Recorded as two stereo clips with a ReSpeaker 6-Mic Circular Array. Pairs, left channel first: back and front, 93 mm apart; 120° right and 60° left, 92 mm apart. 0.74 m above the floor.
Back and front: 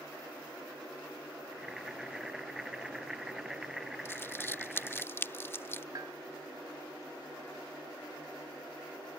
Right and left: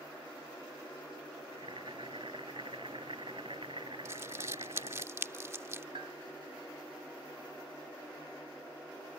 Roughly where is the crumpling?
Behind left.